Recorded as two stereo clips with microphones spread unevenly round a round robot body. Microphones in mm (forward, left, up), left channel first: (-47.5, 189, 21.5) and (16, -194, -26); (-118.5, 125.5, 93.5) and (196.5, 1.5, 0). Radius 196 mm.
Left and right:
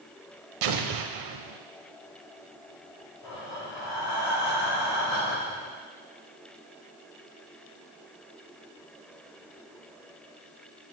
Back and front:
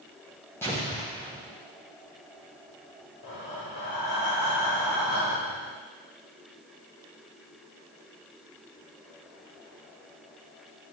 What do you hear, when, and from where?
0.6 s an explosion: 120° right, 0.7 m
3.2 s breathing: 125° left, 2.5 m